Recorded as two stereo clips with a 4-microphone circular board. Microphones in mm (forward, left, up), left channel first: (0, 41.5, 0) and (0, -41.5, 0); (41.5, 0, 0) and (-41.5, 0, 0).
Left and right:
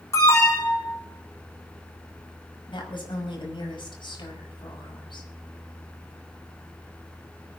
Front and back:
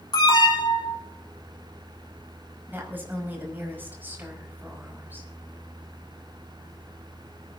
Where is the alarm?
35° left, 5.5 m.